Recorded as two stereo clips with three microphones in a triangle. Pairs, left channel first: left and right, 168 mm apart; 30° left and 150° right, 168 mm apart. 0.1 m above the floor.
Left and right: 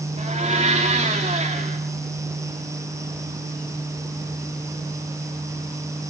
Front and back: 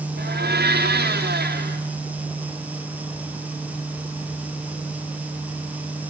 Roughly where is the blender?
Behind right.